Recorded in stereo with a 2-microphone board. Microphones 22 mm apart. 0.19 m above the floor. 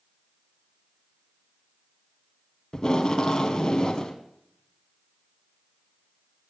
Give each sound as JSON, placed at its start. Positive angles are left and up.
{"t": 2.7, "sound": "tape being pulled", "side_deg": 35, "distance_m": 0.7}